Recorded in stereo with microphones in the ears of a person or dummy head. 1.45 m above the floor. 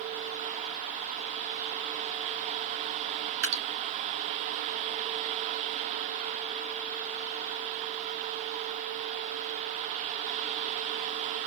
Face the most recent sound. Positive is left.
turn(degrees=-80)